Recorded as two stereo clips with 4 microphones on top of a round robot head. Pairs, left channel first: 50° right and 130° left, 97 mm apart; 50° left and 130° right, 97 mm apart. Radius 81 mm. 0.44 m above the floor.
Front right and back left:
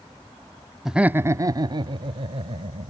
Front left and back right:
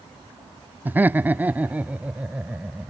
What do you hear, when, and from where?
0.8 s laughter: 150° right; by 2.9 s 155° left